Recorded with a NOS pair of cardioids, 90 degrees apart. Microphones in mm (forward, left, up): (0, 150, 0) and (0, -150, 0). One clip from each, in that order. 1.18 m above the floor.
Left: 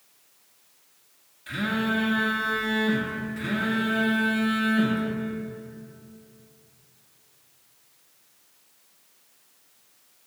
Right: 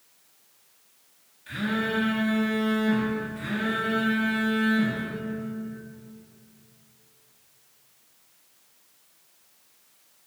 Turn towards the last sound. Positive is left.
turn(degrees=25)